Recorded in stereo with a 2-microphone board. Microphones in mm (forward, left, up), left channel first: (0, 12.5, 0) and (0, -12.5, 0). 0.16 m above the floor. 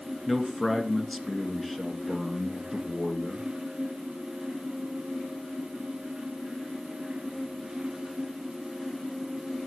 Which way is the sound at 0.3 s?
10° left (ahead or behind).